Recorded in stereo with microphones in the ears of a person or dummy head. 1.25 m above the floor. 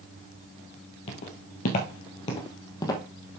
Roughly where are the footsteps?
Left.